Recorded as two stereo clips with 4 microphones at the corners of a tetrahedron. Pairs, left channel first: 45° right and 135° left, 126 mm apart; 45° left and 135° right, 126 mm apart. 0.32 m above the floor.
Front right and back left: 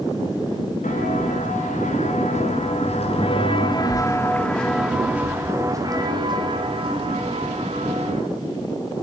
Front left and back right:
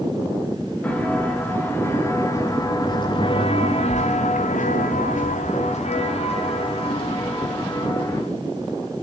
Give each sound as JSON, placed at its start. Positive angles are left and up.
{"t": 0.8, "sound": "footsteps", "azimuth_deg": -35, "distance_m": 4.5}